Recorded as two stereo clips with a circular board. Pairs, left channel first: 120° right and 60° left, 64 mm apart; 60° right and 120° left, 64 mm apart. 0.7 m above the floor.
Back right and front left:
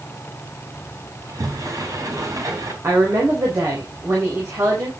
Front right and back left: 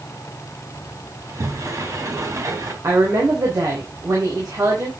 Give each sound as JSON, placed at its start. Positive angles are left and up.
{"t": 1.2, "sound": "a sliding door", "azimuth_deg": 85, "distance_m": 3.0}
{"t": 2.8, "sound": "a woman speaking", "azimuth_deg": 95, "distance_m": 4.5}